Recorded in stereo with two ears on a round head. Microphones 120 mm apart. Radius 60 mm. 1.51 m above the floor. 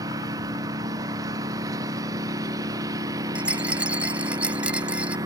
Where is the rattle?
10° right (ahead or behind).